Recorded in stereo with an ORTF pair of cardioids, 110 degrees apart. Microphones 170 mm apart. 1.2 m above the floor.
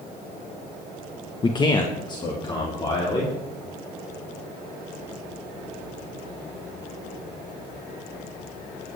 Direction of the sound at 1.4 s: 30° left.